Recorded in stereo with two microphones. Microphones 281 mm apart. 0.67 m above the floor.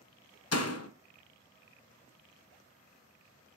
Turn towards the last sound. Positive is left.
turn(degrees=60)  # may be behind; listen again after turning